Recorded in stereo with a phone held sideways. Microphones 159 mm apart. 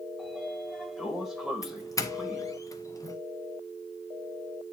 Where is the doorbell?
20° left (ahead or behind), 1.0 m.